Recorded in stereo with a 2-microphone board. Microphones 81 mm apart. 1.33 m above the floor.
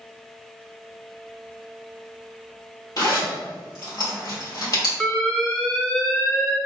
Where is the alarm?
15° left (ahead or behind), 0.6 m.